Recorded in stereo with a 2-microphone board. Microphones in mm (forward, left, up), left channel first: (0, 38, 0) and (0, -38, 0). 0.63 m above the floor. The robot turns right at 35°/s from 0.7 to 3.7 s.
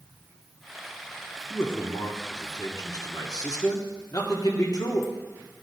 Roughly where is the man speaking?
Ahead left.